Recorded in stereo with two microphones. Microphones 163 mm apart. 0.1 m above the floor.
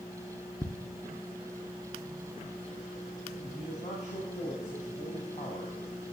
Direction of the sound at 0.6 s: 20° left (ahead or behind).